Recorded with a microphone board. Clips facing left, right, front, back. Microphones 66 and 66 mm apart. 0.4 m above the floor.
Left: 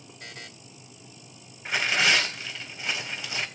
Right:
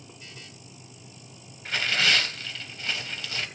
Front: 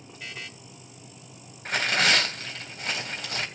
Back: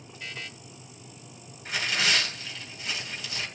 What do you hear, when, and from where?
0.2 s a buzzer: 85° left, 1.3 m
1.6 s tearing paper: 20° left, 1.9 m